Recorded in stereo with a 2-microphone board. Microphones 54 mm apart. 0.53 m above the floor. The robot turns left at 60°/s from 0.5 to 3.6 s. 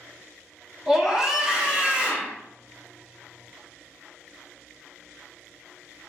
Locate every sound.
0.9 s a scream: 10° right (ahead or behind), 0.8 m; by 2.4 s 20° right (ahead or behind), 0.8 m